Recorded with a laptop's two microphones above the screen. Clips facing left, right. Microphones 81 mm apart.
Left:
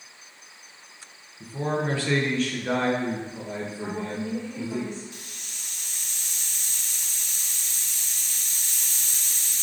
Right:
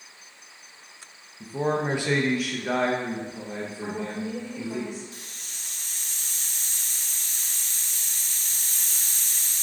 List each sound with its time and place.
1.4 s a man speaking: 20° right (ahead or behind), 0.9 m; by 4.8 s 10° left (ahead or behind), 2 m
3.8 s a woman speaking: 10° right (ahead or behind), 3 m
5.1 s a hiss: 35° right (ahead or behind), 0.7 m